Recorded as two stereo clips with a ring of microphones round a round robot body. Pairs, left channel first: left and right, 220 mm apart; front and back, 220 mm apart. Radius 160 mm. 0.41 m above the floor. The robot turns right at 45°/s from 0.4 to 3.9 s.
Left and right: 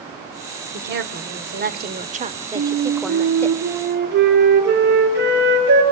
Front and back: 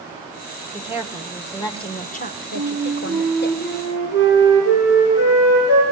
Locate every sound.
0.7 s a woman speaking: 110° right, 1.8 m; by 3.5 s 20° left, 1.8 m
2.5 s a flute: 110° right, 7 m; by 5.8 s 50° right, 7 m